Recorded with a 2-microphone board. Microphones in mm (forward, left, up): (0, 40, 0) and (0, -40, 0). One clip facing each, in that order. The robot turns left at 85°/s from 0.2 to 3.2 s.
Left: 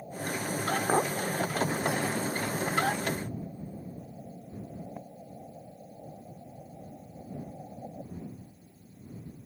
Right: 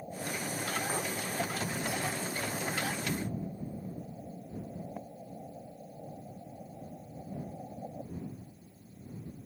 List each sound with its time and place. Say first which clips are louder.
0.9 s a clink: left 9 dB; 55° left (ahead or behind); by 1.1 s 35° left (ahead or behind)